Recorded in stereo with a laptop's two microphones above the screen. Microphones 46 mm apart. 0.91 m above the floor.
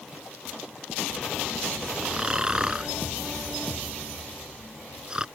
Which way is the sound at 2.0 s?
15° right (ahead or behind).